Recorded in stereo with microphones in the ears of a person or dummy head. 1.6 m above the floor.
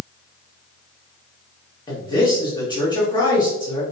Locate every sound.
1.9 s a man speaking: 25° left (ahead or behind), 1.9 m